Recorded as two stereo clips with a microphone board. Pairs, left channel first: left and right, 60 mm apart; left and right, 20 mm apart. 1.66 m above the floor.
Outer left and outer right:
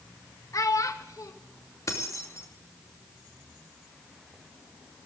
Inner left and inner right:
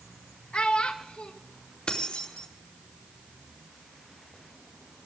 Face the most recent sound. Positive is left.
turn(degrees=60)  # may be behind; listen again after turning